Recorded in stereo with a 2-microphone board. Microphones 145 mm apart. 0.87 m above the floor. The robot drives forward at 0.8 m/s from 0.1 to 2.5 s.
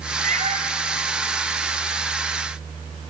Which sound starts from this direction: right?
A cat meowing, at 0.2 s.